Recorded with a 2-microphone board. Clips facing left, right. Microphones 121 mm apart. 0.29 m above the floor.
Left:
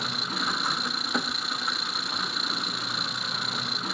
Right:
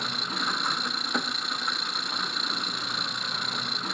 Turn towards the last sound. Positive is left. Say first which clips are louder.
# left 1 dB
turn(degrees=0)  # may be behind; listen again after turning